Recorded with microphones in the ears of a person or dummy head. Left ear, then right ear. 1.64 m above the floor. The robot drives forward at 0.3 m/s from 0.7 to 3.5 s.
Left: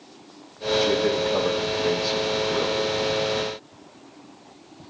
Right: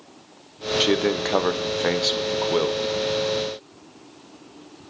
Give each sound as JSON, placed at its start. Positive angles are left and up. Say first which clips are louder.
{"t": 0.8, "sound": "a man speaking", "louder": "right 2 dB", "side_deg": -40, "distance_m": 0.6}